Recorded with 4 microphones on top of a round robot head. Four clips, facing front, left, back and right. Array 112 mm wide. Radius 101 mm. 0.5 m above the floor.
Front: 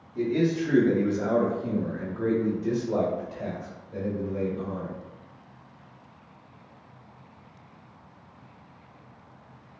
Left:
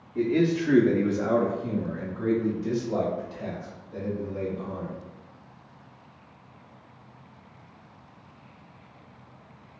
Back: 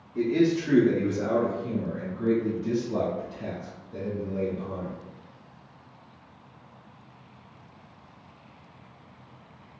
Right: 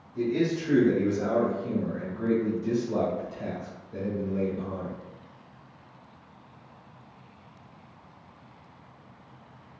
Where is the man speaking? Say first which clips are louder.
Left 3 dB, back 2 dB; 120° left, 0.9 m; by 4.9 s 15° left, 2.5 m.